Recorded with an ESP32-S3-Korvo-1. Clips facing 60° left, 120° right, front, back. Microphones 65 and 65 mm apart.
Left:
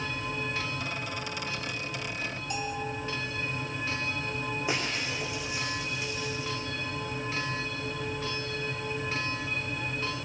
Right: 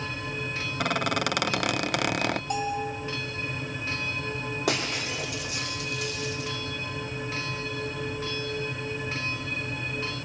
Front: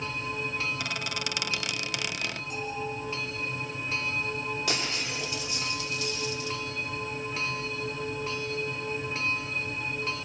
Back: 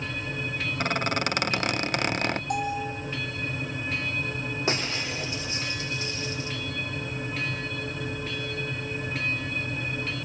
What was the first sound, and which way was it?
A squeak, 135° right.